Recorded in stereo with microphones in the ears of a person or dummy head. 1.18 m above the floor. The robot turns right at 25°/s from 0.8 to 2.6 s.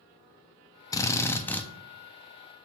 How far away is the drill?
About 0.7 m.